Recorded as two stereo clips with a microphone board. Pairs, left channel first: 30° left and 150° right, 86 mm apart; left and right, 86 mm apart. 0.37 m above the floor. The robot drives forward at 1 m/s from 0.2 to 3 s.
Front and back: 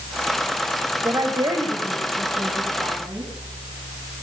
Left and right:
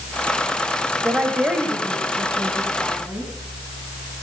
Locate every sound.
1.0 s a woman speaking: 155° right, 1.9 m; by 3.3 s 170° right, 3.5 m